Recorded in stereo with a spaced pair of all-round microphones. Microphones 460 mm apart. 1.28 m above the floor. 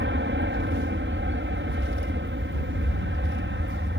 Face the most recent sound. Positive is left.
turn(degrees=-25)  # may be behind; listen again after turning